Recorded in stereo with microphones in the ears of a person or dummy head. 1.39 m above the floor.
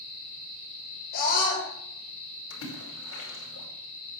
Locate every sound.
1.1 s a scream: 55° left (ahead or behind), 7 m
2.5 s a splash: 75° left (ahead or behind), 5.5 m